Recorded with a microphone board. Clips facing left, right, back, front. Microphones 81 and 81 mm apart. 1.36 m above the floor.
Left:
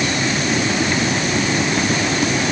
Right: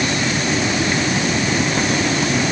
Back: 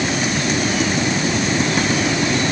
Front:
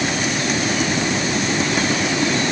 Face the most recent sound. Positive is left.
No sound to turn to.